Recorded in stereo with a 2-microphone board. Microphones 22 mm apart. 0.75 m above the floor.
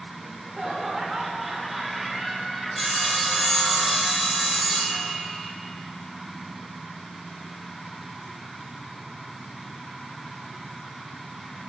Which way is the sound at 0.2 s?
25° right (ahead or behind).